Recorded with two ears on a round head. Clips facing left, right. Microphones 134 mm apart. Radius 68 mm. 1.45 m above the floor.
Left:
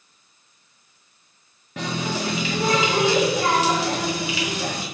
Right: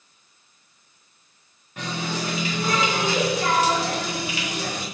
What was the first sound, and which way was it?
A running tap, 65° left (ahead or behind).